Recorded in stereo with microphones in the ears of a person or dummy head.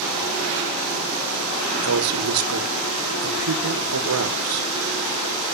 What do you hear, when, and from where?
1.8 s a man speaking: 80° right, 1.4 m